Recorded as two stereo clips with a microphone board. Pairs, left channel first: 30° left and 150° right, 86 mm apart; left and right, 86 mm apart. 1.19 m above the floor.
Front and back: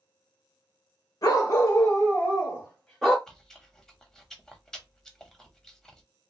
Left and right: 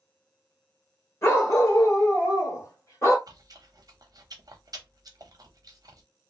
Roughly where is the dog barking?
Ahead left.